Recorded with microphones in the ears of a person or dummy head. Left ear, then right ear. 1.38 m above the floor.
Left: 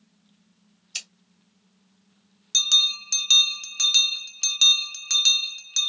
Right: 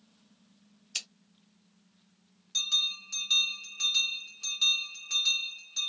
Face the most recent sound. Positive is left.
turn(degrees=45)  # may be behind; listen again after turning